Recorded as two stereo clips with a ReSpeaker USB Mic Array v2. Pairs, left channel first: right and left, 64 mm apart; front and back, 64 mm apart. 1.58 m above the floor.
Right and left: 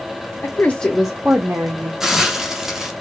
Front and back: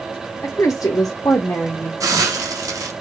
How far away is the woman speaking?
About 0.7 m.